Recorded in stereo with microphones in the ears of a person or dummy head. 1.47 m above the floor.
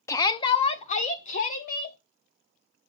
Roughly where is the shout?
Centre.